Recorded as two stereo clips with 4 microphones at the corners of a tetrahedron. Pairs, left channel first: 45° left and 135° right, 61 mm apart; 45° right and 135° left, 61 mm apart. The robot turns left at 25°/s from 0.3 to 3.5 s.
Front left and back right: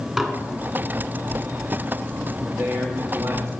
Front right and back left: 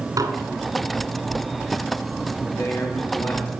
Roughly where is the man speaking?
Right.